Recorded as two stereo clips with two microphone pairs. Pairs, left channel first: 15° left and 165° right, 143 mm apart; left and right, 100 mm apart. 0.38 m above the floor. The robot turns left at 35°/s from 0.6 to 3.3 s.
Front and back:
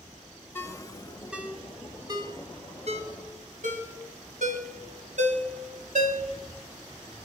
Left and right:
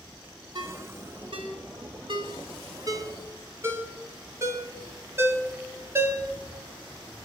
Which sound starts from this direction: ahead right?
A ringtone, at 0.6 s.